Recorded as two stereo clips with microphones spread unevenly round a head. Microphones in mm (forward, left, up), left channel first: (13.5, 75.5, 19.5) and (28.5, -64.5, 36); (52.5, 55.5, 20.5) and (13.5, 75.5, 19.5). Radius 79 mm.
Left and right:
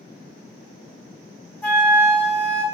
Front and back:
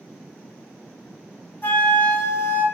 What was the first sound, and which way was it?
A flute, 10° left.